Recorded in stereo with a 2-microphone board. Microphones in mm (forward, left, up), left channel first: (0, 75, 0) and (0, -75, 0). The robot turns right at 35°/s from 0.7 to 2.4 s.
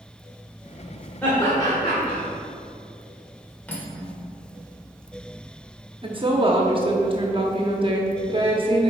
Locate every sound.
1.2 s laughter: 15° left (ahead or behind), 1.9 m; by 2.2 s 40° left (ahead or behind), 1.9 m
3.7 s cutlery clinking: 10° left (ahead or behind), 1.1 m
6.0 s a woman speaking: 35° right (ahead or behind), 0.9 m